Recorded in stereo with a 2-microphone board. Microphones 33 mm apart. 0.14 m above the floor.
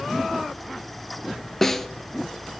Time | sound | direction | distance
1.6 | a snare drum | 15° left (ahead or behind) | 0.6 m